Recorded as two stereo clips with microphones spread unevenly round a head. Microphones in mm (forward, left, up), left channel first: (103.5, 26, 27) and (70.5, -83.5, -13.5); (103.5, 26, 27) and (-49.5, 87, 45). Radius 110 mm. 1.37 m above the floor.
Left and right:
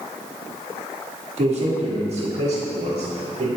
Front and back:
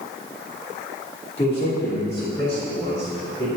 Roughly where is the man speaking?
Right.